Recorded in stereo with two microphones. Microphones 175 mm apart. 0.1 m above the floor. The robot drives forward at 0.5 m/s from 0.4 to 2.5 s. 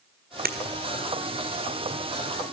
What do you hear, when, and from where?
0.5 s breaking glass: 60° right (ahead or behind), 1.3 m